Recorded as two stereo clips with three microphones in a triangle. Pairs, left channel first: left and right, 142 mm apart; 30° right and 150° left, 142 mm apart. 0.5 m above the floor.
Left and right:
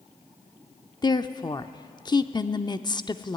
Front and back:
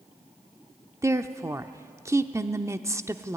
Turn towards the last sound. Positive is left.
turn(degrees=105)